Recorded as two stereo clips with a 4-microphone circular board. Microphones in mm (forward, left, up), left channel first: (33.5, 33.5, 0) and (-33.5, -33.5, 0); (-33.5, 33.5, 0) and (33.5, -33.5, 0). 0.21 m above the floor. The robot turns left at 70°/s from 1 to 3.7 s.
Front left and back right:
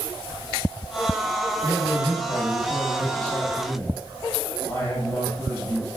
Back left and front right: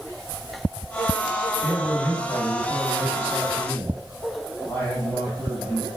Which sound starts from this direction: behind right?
A man speaking, at 1.6 s.